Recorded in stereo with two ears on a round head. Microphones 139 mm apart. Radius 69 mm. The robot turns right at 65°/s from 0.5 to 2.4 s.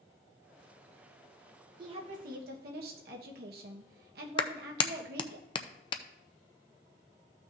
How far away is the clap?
About 0.6 m.